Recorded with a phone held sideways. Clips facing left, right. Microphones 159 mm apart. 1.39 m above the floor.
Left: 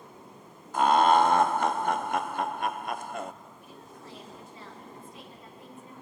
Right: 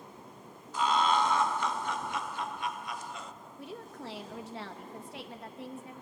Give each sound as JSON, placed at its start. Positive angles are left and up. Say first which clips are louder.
{"t": 0.7, "sound": "laughter", "louder": "left 7 dB", "side_deg": 55, "distance_m": 0.6}
{"t": 3.6, "sound": "a woman speaking", "louder": "right 5 dB", "side_deg": -80, "distance_m": 1.6}